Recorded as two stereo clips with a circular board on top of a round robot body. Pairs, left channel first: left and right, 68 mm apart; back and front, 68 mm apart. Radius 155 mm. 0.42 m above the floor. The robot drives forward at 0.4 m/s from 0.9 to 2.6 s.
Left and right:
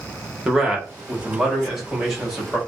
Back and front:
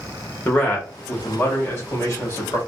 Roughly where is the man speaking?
Behind.